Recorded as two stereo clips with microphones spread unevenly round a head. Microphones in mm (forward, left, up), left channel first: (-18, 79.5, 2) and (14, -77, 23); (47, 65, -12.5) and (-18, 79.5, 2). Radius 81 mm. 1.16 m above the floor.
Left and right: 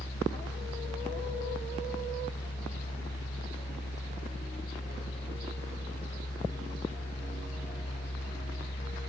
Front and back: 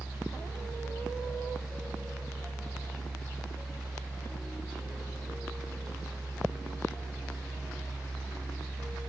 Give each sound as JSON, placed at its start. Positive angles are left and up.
{"t": 0.0, "sound": "a fan", "azimuth_deg": 85}